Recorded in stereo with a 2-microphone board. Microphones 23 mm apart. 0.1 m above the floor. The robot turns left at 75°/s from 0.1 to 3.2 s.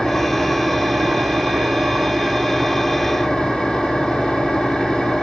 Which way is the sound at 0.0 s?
10° left.